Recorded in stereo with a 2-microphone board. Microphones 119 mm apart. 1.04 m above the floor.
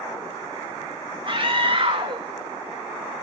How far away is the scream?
About 1.6 m.